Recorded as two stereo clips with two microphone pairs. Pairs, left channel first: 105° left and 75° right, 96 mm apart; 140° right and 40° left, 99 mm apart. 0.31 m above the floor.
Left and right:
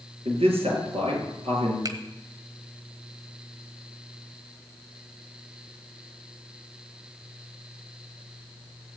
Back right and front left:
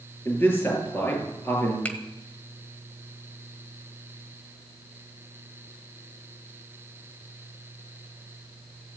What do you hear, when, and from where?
0.2 s a man speaking: 75° right, 6.5 m
1.9 s a finger snap: 75° right, 1.5 m